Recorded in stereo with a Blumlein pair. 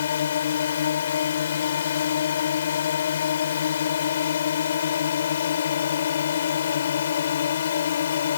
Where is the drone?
65° left.